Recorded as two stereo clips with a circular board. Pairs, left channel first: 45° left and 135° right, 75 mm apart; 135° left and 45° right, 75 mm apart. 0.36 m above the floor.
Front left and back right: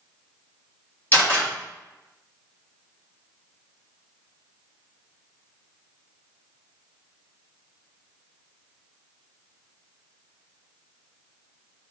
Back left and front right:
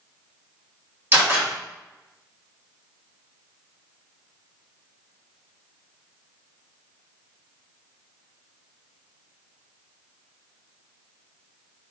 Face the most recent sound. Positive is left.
turn(degrees=0)